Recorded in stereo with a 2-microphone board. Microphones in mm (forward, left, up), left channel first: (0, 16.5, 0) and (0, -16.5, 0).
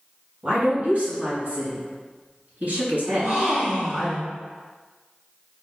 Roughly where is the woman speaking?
Right.